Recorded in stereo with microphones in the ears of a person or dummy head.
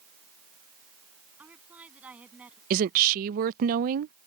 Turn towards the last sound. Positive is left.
turn(degrees=-50)  # may be behind; listen again after turning